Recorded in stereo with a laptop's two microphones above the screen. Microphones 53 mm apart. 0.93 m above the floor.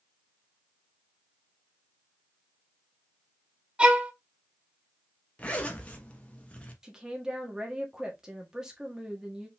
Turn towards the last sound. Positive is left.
turn(degrees=-15)  # may be behind; listen again after turning